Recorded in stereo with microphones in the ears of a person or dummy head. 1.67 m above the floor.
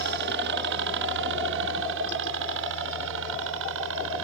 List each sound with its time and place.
0.0 s a helicopter: 55° right (ahead or behind); by 4.2 s 65° right (ahead or behind)